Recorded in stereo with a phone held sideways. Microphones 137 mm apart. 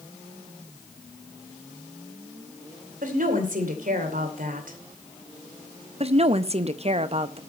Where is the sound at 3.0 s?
75° right (ahead or behind), 2.5 m.